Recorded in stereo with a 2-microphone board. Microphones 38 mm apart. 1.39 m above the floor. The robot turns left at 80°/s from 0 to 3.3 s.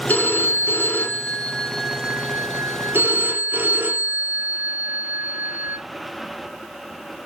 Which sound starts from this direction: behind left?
A phone ringing, at 0.1 s.